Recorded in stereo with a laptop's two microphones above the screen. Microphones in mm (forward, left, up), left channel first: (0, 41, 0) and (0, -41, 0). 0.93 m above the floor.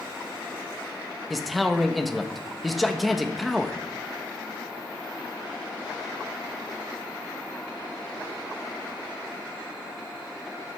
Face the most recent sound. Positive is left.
turn(degrees=0)  # may be behind; listen again after turning